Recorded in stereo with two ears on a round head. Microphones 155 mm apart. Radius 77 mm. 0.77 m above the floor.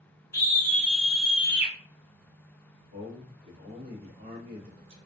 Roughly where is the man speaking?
Right.